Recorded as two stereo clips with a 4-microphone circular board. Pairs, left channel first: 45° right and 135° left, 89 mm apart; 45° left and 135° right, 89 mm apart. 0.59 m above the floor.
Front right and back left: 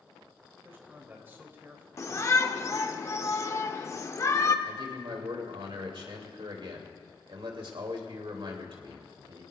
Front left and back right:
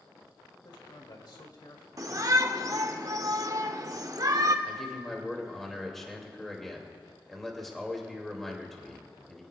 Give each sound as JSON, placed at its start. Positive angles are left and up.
{"t": 0.7, "sound": "a man speaking", "azimuth_deg": 70, "distance_m": 2.5}
{"t": 2.0, "sound": "a shout", "azimuth_deg": -95, "distance_m": 1.1}
{"t": 4.7, "sound": "a man speaking", "azimuth_deg": 130, "distance_m": 3.0}